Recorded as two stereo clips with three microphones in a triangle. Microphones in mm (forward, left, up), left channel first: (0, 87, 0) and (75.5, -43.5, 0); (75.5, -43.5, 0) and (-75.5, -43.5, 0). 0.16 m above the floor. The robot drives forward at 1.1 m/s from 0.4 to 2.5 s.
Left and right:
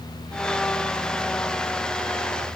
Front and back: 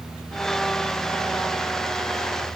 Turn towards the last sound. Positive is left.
No sound to turn to.